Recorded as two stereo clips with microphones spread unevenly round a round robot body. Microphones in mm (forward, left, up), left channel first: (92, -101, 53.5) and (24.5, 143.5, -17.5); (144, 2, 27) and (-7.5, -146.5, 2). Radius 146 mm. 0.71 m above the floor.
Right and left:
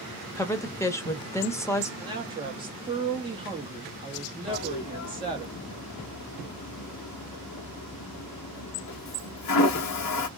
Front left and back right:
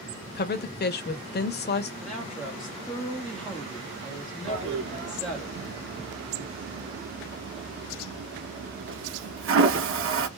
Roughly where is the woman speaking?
Ahead.